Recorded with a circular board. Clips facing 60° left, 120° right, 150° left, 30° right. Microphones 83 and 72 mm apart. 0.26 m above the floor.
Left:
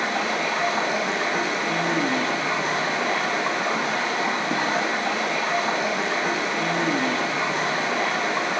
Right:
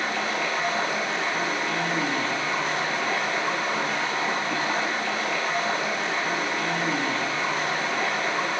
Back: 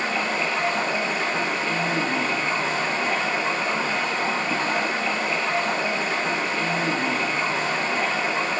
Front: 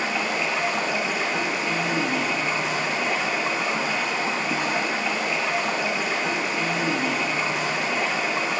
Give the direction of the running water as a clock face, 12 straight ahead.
10 o'clock.